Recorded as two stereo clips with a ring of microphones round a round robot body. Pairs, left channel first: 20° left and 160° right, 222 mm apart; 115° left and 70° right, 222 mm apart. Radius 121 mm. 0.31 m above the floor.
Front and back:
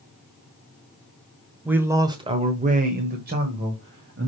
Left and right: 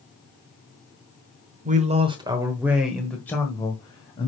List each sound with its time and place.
1.6 s a man speaking: 80° right, 1.3 m; by 4.3 s 175° left, 2 m